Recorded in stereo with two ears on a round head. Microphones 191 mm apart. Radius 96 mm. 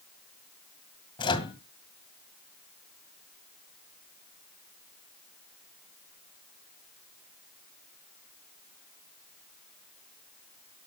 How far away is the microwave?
About 2 m.